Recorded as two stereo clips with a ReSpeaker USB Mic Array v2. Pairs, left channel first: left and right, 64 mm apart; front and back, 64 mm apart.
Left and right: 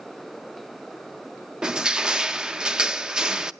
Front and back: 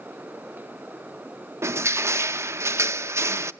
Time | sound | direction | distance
1.6 | crushing | 165° right | 0.6 m